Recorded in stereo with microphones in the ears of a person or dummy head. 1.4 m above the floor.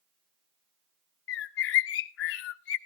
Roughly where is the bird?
Left.